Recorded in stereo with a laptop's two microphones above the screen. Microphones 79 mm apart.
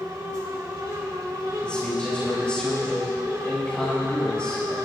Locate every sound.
0.0 s a fan: 60° right (ahead or behind), 3 m
1.6 s a man speaking: 15° left (ahead or behind), 5 m